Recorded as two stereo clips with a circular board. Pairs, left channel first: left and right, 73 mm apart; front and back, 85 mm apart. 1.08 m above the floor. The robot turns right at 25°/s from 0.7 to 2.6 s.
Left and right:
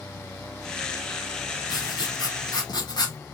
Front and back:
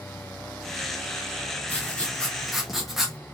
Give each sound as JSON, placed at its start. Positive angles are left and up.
{"t": 1.7, "sound": "writing", "azimuth_deg": 70, "distance_m": 1.8}